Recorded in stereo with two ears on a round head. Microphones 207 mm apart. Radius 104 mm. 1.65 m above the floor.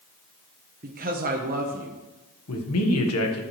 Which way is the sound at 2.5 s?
70° left (ahead or behind).